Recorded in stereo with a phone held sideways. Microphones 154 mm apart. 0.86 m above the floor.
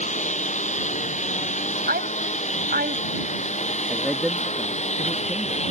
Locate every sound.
0.0 s a lawn mower: 50° left (ahead or behind); by 5.7 s 45° left (ahead or behind)
1.9 s a woman speaking: 80° right
3.9 s a man speaking: centre (ahead or behind)